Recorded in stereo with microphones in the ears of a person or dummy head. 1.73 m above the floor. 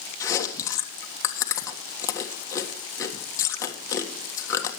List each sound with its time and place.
0.2 s chewing: 20° left (ahead or behind), 1.5 m